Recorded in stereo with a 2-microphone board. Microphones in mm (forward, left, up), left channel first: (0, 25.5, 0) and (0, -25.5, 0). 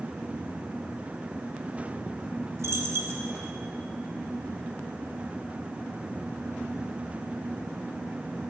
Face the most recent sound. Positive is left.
turn(degrees=-70)  # may be behind; listen again after turning